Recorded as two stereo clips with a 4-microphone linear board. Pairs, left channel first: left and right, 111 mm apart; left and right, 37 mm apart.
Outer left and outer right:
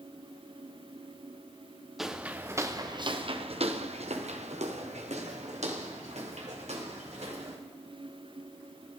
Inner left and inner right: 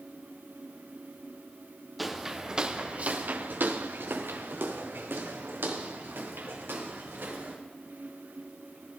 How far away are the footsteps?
About 1.4 m.